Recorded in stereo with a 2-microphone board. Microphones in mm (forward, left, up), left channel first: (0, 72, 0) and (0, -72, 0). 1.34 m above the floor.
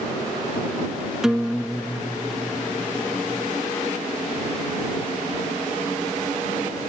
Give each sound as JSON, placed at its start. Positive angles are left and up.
{"t": 1.2, "sound": "a guitar", "side_deg": -5}